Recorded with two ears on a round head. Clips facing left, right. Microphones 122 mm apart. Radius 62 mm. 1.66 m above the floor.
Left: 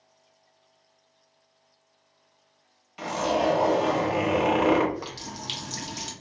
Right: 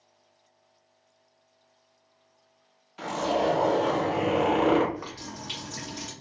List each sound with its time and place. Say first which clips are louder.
3.0 s a zipper: left 1 dB; 15° left (ahead or behind), 1.1 m
4.9 s a running tap: left 2 dB; 30° left (ahead or behind), 0.7 m